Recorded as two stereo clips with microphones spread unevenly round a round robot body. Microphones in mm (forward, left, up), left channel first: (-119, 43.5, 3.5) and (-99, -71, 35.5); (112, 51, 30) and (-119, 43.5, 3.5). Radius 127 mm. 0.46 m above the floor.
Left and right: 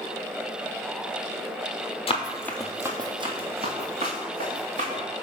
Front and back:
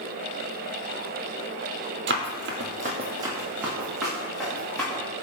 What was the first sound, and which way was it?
Running footsteps, 145° left.